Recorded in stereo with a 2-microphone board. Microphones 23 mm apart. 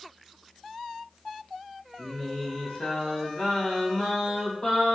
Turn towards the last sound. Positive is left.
turn(degrees=60)  # may be behind; listen again after turning